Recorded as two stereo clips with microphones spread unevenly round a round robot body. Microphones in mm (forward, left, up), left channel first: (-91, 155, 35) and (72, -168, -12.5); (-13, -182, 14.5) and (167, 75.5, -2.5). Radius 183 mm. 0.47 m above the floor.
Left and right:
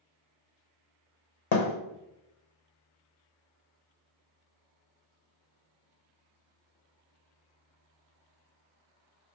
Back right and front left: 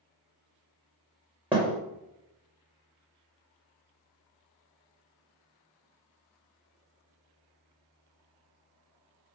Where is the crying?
I don't hear crying.